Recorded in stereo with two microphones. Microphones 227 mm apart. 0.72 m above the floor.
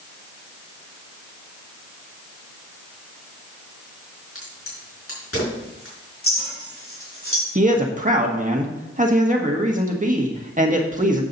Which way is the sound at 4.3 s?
70° left (ahead or behind).